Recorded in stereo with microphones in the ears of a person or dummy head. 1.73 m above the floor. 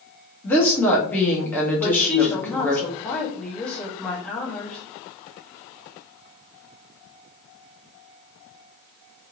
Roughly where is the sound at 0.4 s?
Centre.